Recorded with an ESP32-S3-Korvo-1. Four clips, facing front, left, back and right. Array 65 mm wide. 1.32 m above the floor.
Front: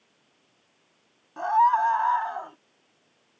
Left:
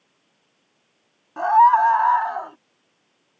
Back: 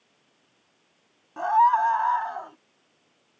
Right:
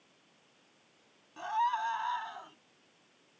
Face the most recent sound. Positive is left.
turn(degrees=85)